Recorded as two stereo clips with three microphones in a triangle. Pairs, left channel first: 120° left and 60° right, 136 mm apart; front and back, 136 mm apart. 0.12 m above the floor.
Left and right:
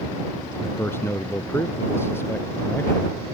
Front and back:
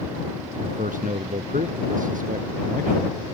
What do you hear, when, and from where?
0.6 s a man speaking: 165° right